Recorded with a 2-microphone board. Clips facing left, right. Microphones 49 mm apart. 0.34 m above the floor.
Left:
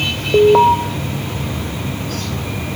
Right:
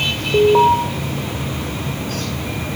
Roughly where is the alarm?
Left.